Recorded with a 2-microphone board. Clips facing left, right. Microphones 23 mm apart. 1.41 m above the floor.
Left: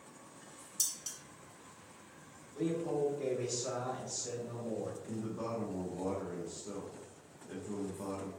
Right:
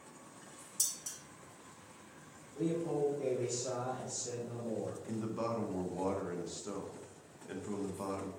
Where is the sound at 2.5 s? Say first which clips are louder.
Even; 75° left (ahead or behind), 1.9 m.